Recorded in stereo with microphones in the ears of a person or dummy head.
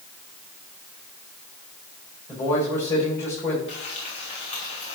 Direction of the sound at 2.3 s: 20° left (ahead or behind).